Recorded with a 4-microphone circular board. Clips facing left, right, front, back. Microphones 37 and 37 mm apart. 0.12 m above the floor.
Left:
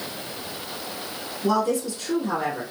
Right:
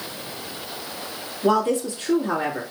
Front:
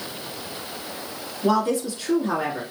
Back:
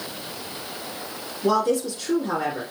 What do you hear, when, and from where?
1.4 s a woman speaking: 70° right, 1.4 m